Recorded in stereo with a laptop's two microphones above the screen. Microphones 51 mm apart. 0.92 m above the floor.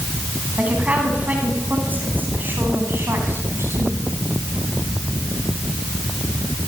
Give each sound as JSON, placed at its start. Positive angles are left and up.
{"t": 0.6, "sound": "a woman speaking", "side_deg": -25, "distance_m": 9.0}